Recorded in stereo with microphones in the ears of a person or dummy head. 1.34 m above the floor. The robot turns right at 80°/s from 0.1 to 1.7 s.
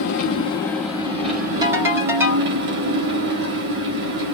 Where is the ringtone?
20° right (ahead or behind), 1.8 m; by 2.5 s 15° right (ahead or behind), 1.8 m.